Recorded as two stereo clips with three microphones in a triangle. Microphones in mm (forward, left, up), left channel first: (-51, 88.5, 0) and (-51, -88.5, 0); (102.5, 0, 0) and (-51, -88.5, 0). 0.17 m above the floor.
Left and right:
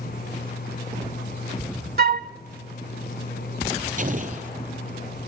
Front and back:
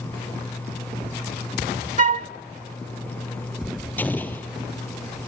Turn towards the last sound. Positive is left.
turn(degrees=-50)